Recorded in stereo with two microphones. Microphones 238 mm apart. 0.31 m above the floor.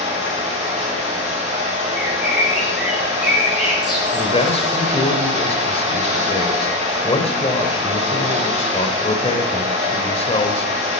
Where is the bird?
Centre (ahead or behind), 3.5 m.